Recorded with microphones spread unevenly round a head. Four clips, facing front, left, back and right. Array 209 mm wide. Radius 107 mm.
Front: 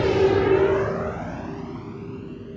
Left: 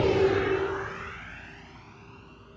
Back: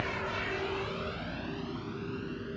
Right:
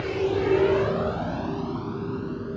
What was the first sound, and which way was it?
A vehicle, 25° left.